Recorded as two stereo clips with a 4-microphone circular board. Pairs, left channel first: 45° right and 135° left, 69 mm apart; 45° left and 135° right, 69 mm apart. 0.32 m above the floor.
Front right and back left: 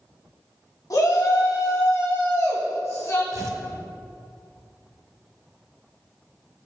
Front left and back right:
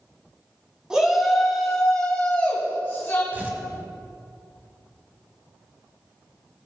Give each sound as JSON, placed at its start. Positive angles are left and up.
{"t": 0.9, "sound": "a shout", "azimuth_deg": -55, "distance_m": 3.0}
{"t": 3.3, "sound": "tearing paper", "azimuth_deg": 165, "distance_m": 1.1}